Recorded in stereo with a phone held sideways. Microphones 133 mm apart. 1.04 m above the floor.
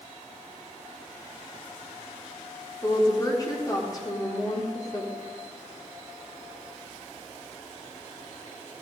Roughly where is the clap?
No clap in this recording.